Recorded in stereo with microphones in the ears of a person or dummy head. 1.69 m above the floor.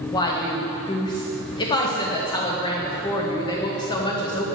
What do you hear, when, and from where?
0.1 s a woman speaking: 25° left (ahead or behind), 0.8 m